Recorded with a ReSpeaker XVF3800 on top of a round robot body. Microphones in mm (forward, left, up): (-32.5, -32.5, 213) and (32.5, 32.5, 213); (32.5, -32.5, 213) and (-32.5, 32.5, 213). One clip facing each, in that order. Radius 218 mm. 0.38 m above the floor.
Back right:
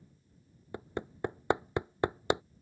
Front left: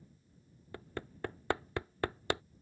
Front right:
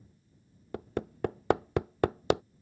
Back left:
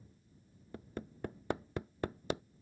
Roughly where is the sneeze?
I don't hear a sneeze.